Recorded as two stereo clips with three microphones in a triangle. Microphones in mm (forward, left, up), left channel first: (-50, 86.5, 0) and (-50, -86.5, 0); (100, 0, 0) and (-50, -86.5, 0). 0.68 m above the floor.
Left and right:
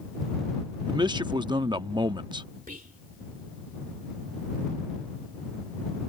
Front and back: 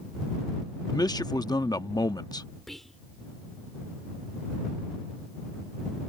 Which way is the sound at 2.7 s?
60° right.